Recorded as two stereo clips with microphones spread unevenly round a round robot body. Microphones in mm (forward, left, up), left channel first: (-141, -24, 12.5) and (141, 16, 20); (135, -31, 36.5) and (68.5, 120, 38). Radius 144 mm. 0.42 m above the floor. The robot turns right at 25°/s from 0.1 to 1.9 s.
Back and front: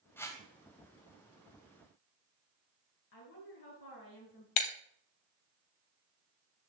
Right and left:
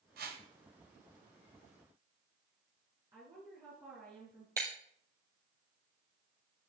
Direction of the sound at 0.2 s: 105° left.